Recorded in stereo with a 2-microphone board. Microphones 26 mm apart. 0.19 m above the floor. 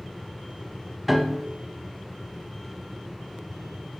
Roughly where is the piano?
Centre.